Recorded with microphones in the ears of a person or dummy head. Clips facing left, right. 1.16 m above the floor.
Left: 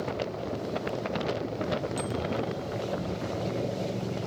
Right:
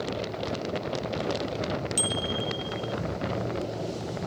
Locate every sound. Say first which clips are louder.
2.0 s a bicycle bell: left 1 dB; 40° right (ahead or behind)